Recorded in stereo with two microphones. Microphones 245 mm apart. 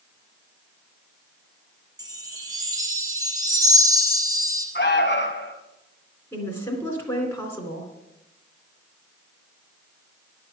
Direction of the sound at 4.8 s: 45° left (ahead or behind).